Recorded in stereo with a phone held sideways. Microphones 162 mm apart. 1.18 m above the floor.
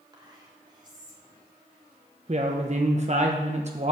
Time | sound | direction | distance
0.1 | whispering | 30° right (ahead or behind) | 3 m
2.3 | a woman speaking | 45° right (ahead or behind) | 0.9 m